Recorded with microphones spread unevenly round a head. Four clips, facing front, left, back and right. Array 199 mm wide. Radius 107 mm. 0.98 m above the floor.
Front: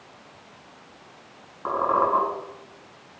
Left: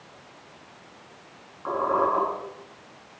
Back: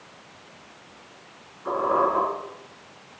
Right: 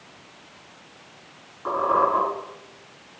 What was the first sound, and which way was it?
A squeak, 15° right.